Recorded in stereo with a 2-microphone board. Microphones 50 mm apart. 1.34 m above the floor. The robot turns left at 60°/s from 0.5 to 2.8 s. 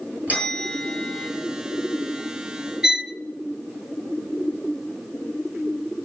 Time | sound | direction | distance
0.3 | a bell | 150° right | 8.5 m
2.8 | a violin | 15° right (ahead or behind) | 0.5 m